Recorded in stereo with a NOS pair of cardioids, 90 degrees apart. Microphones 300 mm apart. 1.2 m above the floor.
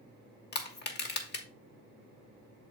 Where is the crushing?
30° left, 1.6 m.